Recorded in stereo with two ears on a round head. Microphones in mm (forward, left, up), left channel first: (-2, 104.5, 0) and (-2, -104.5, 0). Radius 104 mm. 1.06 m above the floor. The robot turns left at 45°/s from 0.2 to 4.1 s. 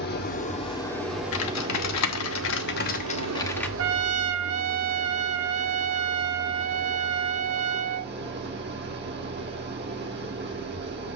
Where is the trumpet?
60° right (ahead or behind), 0.6 m; by 8.1 s 65° right (ahead or behind), 0.6 m.